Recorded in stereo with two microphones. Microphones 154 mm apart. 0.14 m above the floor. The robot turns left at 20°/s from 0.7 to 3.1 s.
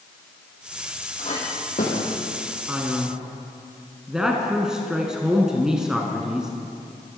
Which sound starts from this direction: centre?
A man speaking, at 2.7 s.